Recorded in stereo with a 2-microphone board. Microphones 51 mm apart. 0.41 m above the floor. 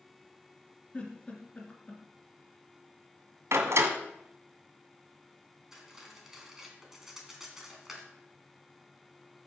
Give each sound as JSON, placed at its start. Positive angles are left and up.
{"t": 0.9, "sound": "a giggle", "side_deg": 25, "distance_m": 3.0}
{"t": 3.5, "sound": "a door slam", "side_deg": -70, "distance_m": 1.9}
{"t": 5.7, "sound": "cutlery clinking", "side_deg": -10, "distance_m": 2.5}